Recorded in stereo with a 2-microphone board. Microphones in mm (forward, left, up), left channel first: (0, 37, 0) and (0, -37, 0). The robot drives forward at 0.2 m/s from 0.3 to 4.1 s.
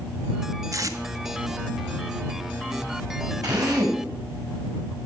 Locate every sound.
0.7 s tape being pulled: 45° right (ahead or behind), 1.3 m
3.4 s a drill: 50° right (ahead or behind), 5.5 m; by 4.0 s 55° right (ahead or behind), 5.5 m